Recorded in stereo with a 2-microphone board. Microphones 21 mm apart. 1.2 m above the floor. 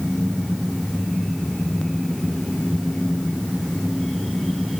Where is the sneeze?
I don't hear a sneeze.